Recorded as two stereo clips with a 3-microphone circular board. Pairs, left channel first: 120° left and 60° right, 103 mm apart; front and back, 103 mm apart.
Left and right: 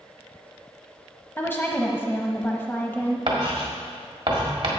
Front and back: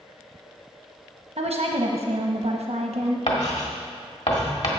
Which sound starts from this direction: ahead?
Writing, at 3.3 s.